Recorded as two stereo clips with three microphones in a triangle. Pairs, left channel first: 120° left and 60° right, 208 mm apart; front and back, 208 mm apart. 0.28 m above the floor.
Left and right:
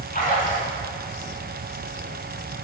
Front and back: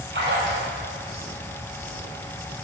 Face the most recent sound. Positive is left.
turn(degrees=160)